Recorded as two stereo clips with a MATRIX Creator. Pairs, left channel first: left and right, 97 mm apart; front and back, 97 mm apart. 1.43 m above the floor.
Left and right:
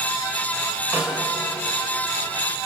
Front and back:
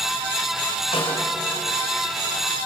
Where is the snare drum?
20° right, 5 m.